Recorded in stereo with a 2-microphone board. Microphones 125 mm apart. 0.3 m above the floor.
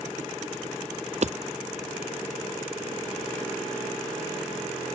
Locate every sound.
1.2 s hammering: 60° right (ahead or behind)